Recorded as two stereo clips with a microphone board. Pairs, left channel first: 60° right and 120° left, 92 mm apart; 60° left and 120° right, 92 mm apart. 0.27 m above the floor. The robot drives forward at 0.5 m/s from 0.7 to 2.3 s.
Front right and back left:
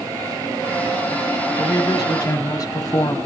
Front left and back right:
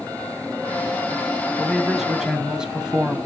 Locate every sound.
1.6 s a man speaking: 30° right, 1.6 m; by 3.2 s 40° right, 1.4 m